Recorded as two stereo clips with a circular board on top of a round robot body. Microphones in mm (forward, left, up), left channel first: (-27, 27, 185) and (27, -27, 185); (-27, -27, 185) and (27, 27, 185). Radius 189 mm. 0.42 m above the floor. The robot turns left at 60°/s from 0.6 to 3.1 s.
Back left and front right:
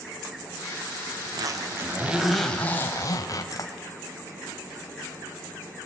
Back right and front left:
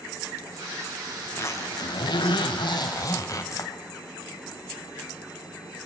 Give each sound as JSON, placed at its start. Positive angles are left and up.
{"t": 1.2, "sound": "a zipper", "azimuth_deg": -70, "distance_m": 3.0}